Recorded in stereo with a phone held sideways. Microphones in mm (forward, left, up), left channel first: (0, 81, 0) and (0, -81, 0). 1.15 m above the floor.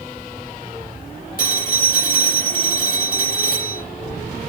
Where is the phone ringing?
65° left (ahead or behind), 3 m.